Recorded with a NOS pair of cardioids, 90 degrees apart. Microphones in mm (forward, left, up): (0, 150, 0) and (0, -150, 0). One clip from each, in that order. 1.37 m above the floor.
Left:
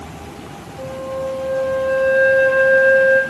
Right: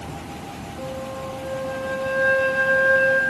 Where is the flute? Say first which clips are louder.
Left 7 dB; 25° left, 0.8 m.